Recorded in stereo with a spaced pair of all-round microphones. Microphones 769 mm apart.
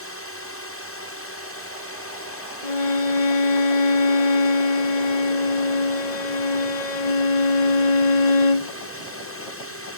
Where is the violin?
75° left (ahead or behind).